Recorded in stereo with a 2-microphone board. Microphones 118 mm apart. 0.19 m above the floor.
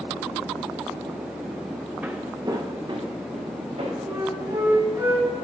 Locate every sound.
2.0 s footsteps: 10° right (ahead or behind), 0.8 m; by 4.0 s 55° right (ahead or behind), 2.5 m
4.1 s a flute: 30° right (ahead or behind), 2.0 m